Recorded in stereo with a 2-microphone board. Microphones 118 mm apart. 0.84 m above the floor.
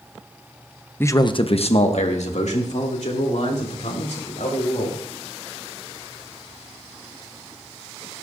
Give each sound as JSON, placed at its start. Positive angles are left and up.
{"t": 1.0, "sound": "a man speaking", "side_deg": 15, "distance_m": 0.6}